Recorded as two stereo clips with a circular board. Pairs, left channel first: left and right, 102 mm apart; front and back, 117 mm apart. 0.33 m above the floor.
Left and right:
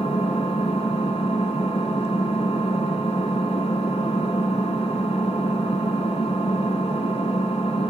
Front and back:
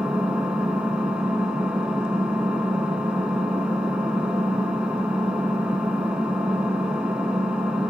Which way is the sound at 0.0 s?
100° left.